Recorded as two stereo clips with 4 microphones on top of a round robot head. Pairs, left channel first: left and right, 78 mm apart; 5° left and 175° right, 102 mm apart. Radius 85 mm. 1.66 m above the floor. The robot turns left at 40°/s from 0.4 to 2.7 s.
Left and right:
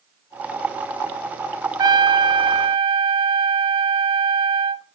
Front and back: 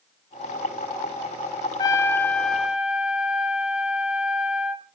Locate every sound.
1.8 s a trumpet: 55° right, 0.8 m; by 4.8 s 95° right, 0.8 m